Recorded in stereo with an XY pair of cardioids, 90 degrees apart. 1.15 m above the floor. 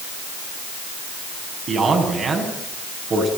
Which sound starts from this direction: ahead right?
A man speaking, at 1.7 s.